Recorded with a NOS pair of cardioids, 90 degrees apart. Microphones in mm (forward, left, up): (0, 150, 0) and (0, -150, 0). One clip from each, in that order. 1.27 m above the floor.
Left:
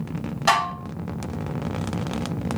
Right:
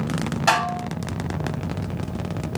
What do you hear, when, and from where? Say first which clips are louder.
0.5 s dishes clattering: even; straight ahead, 0.8 m